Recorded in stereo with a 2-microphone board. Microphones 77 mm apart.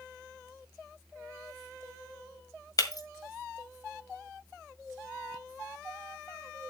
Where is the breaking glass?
50° left (ahead or behind), 1.7 m.